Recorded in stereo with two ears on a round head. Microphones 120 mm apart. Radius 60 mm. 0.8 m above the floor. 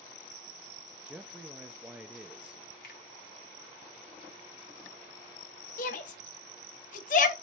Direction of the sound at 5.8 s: 65° left (ahead or behind).